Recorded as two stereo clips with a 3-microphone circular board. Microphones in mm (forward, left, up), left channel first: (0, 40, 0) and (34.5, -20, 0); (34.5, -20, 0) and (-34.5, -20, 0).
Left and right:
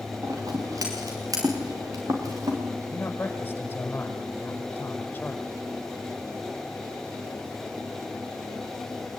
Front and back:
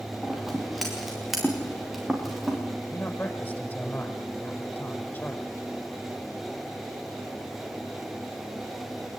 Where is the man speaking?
55° left, 4.5 m.